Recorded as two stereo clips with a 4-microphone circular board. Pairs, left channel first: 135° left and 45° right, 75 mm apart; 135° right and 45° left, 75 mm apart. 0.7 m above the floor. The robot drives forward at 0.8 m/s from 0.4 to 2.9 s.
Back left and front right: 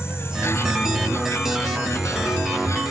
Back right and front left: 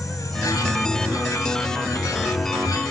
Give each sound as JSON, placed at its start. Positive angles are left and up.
{"t": 0.0, "sound": "an insect", "azimuth_deg": -170}